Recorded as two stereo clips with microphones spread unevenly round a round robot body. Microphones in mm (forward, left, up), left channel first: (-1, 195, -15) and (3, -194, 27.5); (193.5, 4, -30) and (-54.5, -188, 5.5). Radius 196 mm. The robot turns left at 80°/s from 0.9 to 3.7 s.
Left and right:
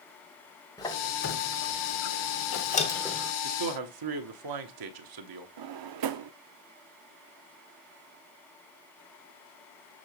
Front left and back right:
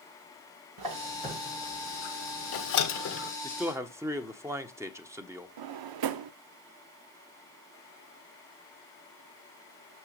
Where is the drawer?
130° right, 0.6 m.